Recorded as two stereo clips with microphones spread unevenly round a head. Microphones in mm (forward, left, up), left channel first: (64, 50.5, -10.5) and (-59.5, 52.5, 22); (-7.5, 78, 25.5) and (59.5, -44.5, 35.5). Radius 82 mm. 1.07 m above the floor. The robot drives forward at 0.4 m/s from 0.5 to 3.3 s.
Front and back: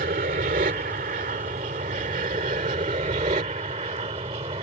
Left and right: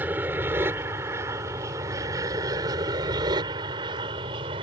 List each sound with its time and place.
0.0 s an aircraft: 140° right; by 4.6 s 120° right